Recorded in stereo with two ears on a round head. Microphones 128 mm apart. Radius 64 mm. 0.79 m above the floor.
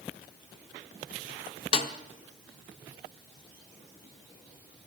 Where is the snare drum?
40° left (ahead or behind), 0.9 m.